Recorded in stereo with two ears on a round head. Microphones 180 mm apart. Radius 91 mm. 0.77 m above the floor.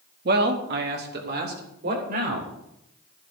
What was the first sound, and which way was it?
A man speaking, 50° right (ahead or behind).